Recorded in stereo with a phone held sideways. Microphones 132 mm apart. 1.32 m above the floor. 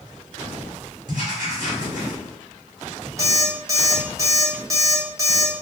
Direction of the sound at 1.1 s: 65° right (ahead or behind).